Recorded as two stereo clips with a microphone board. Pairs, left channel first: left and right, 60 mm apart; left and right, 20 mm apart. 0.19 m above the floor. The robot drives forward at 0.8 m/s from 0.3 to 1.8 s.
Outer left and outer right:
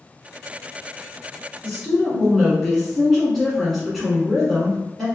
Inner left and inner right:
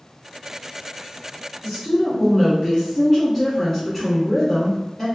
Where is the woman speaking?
Centre (ahead or behind), 1.5 m.